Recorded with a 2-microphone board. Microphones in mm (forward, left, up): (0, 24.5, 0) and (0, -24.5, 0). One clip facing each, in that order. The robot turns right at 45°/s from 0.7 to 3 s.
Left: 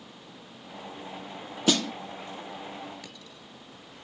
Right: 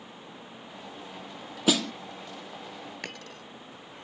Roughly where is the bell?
No bell in this recording.